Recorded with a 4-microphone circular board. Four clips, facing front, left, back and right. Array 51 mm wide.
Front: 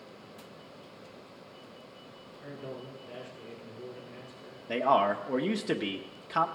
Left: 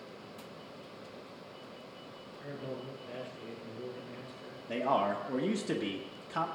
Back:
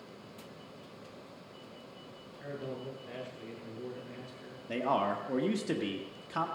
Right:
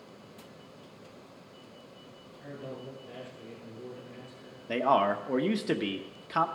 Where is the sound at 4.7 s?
55° right, 1.0 m.